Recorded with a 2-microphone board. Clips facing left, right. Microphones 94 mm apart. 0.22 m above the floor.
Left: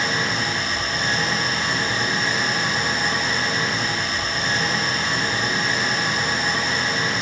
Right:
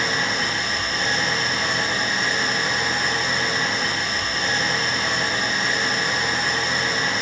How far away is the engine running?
About 1.9 m.